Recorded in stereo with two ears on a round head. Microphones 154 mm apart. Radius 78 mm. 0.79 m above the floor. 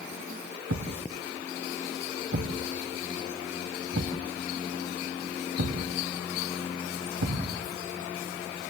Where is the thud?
85° right, 2 m.